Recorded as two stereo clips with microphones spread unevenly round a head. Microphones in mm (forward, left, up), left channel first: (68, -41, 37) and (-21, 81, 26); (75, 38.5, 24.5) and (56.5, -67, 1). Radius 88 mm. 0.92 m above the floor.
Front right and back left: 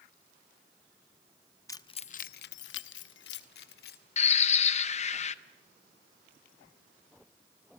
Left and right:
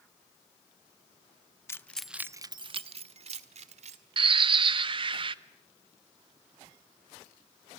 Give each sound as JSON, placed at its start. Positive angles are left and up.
{"t": 1.7, "sound": "keys jangling", "azimuth_deg": 15, "distance_m": 0.8}
{"t": 4.2, "sound": "a bird", "azimuth_deg": -100, "distance_m": 0.6}